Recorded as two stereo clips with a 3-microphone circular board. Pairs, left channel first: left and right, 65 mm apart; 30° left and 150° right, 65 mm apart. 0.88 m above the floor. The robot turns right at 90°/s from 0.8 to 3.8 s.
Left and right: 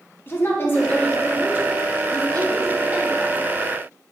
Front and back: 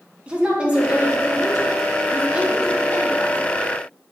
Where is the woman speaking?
140° left, 1.2 m; by 3.4 s 20° left, 1.2 m.